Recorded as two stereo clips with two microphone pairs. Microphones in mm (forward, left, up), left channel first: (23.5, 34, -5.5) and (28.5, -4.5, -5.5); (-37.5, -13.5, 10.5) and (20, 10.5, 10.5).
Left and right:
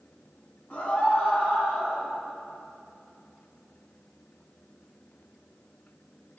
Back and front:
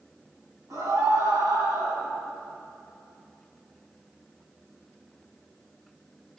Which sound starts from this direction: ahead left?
A scream, at 0.7 s.